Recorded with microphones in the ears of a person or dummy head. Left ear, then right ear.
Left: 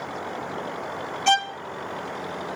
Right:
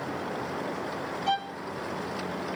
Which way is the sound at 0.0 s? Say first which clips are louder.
Left 1 dB; 30° left (ahead or behind).